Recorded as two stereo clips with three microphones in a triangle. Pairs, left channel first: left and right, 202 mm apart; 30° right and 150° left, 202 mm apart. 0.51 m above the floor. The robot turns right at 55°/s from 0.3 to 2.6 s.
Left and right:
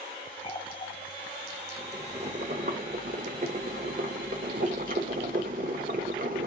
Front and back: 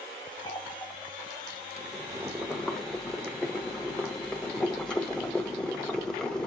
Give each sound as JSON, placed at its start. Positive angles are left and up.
{"t": 0.4, "sound": "a running tap", "azimuth_deg": 30, "distance_m": 1.1}
{"t": 1.8, "sound": "boiling", "azimuth_deg": -160, "distance_m": 1.3}